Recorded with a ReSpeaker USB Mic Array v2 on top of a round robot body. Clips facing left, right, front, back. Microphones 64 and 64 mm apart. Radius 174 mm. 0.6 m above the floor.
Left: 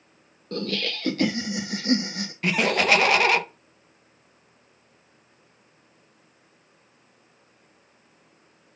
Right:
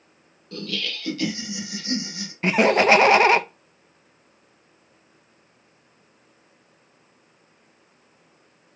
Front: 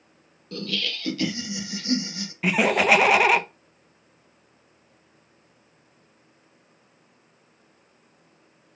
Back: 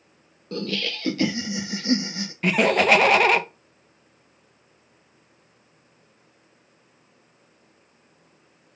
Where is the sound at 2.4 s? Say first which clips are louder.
Right 5 dB, back 1 dB; 80° right, 0.9 m.